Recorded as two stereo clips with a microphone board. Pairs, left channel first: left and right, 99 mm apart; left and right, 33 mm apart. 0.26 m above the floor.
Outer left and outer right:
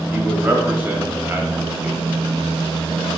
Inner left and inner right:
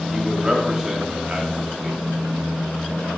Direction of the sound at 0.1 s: 20° right (ahead or behind).